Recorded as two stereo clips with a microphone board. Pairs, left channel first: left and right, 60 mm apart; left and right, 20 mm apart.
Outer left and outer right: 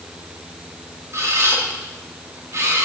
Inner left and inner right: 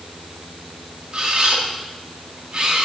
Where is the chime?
I don't hear a chime.